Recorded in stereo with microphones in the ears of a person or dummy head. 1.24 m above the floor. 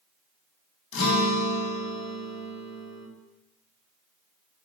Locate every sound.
0.9 s a guitar: 65° left (ahead or behind), 1.3 m